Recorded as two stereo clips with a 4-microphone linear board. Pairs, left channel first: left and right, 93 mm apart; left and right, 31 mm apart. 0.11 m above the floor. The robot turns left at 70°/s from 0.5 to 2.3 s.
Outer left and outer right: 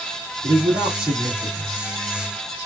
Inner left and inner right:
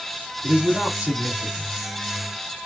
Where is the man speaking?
65° right, 3.5 m; by 1.9 s 160° right, 3.5 m.